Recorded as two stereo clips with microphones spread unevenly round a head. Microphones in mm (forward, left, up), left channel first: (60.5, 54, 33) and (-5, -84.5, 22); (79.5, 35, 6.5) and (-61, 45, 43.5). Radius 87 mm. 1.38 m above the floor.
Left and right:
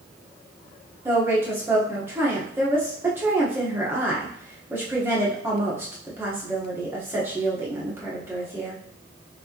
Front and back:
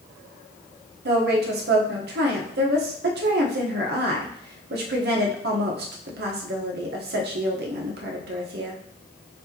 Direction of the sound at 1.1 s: 165° left.